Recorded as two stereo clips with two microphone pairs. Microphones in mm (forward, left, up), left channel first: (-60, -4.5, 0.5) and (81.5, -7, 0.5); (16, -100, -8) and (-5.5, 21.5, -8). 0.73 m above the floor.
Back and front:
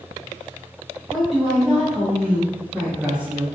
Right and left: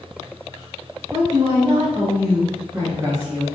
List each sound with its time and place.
1.1 s a woman speaking: 90° left, 1.8 m; by 3.5 s 55° left, 0.8 m